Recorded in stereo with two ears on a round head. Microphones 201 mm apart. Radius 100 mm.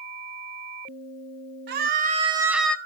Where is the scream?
50° right (ahead or behind), 1.7 m; by 2.8 s 10° left (ahead or behind), 1.2 m.